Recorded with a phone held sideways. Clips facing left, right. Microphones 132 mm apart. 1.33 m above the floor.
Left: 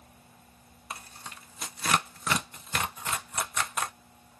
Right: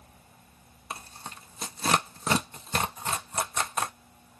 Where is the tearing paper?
35° right (ahead or behind), 0.6 m.